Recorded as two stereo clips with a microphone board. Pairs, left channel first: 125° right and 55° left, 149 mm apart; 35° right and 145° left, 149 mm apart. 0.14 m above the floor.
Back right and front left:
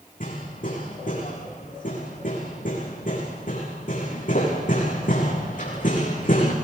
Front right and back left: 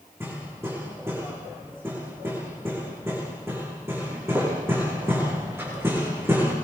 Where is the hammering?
140° right, 7 m.